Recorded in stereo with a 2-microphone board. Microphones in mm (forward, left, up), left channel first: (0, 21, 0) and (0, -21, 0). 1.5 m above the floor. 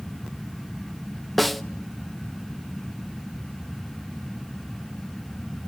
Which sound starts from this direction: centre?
A snare drum, at 1.4 s.